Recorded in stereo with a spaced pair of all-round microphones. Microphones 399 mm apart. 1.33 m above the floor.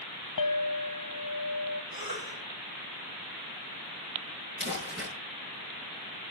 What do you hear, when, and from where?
0.4 s a clink: 50° left (ahead or behind), 1.0 m
1.9 s a cough: 60° right (ahead or behind), 10 m
4.6 s crumpling: 30° right (ahead or behind), 7.5 m